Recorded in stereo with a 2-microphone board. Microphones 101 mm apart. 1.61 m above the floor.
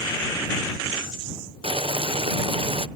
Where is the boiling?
65° right (ahead or behind).